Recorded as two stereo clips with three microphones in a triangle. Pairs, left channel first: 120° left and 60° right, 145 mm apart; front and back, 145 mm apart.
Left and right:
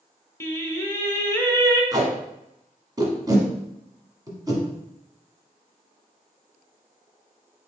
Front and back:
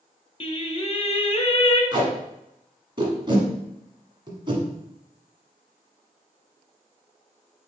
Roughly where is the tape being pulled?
Behind right.